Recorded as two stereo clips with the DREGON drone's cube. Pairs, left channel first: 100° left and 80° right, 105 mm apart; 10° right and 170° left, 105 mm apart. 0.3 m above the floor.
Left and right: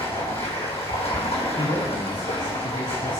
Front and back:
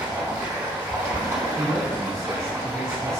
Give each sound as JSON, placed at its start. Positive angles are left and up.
{"t": 0.0, "sound": "running water", "azimuth_deg": 110, "distance_m": 3.5}
{"t": 1.6, "sound": "a man speaking", "azimuth_deg": 70, "distance_m": 2.5}